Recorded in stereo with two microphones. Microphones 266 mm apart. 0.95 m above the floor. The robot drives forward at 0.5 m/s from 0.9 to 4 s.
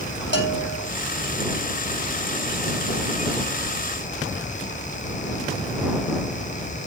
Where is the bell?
40° left (ahead or behind), 1.8 m.